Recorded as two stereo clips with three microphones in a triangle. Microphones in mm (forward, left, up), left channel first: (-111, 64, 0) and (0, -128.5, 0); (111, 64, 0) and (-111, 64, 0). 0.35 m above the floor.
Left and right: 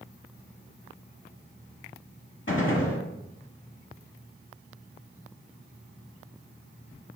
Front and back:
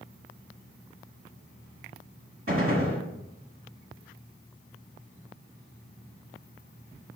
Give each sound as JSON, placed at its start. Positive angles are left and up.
{"t": 2.5, "sound": "a gunshot", "azimuth_deg": 155, "distance_m": 1.0}